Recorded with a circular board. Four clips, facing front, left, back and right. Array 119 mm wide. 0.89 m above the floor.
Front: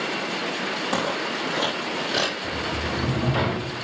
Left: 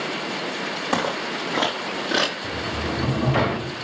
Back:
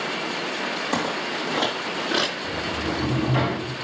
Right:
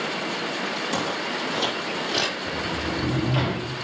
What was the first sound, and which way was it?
Footsteps, 85° left.